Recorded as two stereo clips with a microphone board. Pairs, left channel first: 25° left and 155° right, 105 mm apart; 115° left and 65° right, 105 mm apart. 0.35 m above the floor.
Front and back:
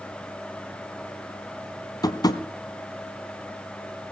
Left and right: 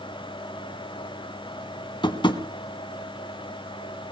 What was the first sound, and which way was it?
Tapping, 75° left.